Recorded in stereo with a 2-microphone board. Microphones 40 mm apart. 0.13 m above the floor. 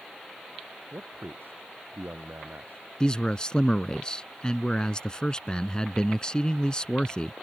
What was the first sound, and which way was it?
A man speaking, 65° right (ahead or behind).